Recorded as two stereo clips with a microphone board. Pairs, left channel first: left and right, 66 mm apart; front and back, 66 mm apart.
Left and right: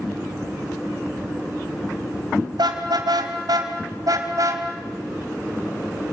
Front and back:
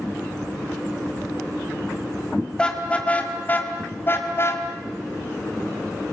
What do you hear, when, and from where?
2.6 s a car horn: 75° right, 2.5 m; by 4.6 s 50° right, 2.5 m